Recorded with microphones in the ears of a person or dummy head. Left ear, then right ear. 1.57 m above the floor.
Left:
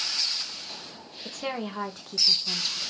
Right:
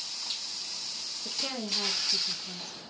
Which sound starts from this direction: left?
A woman speaking, at 1.2 s.